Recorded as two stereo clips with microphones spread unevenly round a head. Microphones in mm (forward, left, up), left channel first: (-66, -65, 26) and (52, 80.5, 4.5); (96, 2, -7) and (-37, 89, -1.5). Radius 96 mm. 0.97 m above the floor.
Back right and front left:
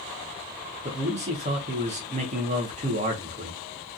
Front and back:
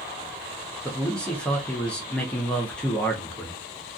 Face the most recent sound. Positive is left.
turn(degrees=45)